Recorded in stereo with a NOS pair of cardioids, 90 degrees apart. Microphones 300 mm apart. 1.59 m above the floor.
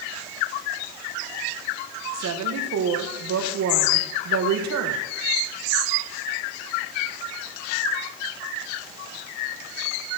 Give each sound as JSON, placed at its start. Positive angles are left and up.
{"t": 2.1, "sound": "a woman speaking", "azimuth_deg": -60, "distance_m": 1.8}